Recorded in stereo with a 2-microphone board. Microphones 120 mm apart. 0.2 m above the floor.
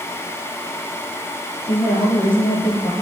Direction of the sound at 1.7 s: 45° left (ahead or behind).